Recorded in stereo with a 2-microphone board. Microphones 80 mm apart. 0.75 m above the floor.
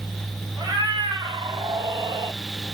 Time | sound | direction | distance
0.6 | a cat meowing | 60° right (ahead or behind) | 1.7 m